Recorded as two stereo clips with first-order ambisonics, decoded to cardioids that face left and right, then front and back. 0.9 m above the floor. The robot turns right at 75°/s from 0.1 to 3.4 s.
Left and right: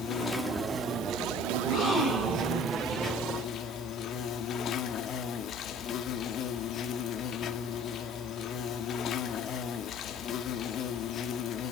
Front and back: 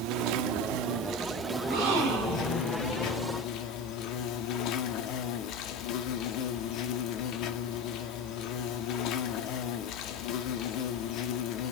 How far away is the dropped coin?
No dropped coin in this recording.